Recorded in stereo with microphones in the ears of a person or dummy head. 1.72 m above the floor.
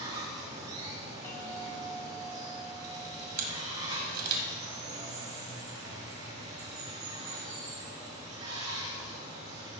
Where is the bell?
15° left (ahead or behind), 2.5 m.